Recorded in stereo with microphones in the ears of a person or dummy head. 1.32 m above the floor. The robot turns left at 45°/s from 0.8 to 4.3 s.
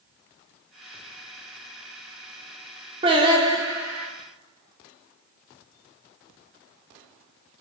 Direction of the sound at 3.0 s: 125° right.